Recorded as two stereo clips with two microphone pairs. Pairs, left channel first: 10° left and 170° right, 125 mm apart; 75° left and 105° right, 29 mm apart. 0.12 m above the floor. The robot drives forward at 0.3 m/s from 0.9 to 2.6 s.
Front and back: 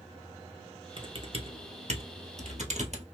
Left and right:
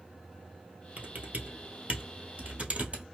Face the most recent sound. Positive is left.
turn(degrees=-150)